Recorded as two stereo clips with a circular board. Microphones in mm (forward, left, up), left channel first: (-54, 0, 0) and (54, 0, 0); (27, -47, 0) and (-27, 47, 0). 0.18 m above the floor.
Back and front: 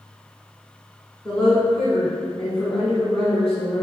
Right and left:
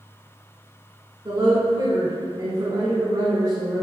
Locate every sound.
1.2 s a woman speaking: 100° left, 1.4 m